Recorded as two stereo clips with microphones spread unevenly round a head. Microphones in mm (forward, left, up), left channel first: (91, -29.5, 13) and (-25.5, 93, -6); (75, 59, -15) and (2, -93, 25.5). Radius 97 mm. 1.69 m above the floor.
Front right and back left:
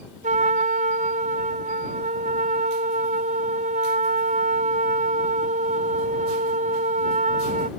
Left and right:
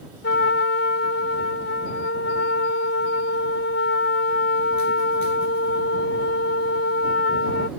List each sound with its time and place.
0.2 s a trumpet: 95° left